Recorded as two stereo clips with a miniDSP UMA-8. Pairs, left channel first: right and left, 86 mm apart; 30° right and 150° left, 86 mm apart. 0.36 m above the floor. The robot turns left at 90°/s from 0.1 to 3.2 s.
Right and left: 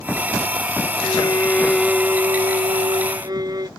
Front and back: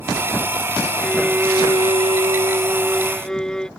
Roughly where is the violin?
Right.